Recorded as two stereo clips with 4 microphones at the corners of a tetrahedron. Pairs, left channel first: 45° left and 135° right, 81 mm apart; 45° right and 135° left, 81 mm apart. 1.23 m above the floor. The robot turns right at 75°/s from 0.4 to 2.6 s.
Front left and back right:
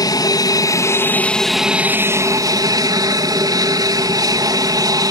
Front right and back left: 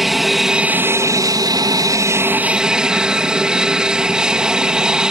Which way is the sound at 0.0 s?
50° left.